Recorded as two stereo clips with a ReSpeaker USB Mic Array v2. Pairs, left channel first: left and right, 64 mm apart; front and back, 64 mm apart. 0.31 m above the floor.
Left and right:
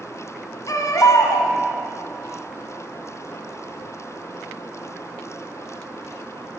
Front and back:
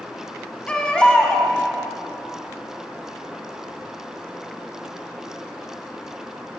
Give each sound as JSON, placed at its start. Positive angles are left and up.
{"t": 0.7, "sound": "a baby crying", "azimuth_deg": 75, "distance_m": 1.7}